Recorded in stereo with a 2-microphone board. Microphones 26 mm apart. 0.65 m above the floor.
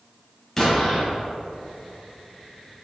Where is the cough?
No cough in this recording.